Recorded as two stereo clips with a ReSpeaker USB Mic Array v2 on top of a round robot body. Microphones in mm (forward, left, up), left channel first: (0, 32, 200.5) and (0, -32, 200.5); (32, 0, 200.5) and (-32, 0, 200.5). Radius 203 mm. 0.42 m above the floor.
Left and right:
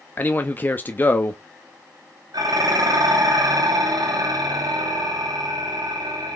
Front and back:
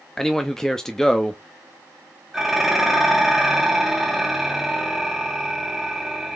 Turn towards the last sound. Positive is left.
turn(degrees=-95)